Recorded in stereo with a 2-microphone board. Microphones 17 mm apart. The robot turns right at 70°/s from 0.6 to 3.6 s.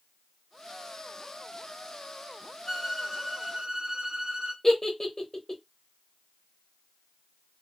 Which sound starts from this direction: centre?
A giggle, at 4.6 s.